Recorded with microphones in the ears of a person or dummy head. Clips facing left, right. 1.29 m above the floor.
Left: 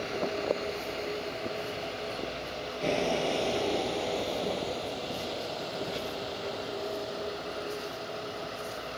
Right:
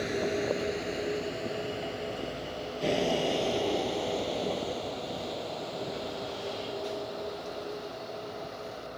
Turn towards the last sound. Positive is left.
turn(degrees=10)  # may be behind; listen again after turning